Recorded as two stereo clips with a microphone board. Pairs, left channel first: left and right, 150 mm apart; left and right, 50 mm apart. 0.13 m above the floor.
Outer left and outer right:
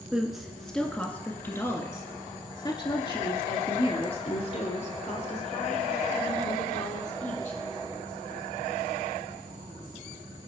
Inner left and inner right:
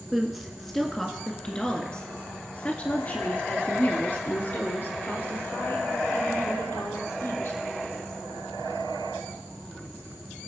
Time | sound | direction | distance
0.1 | a woman speaking | 5° right (ahead or behind) | 1.9 m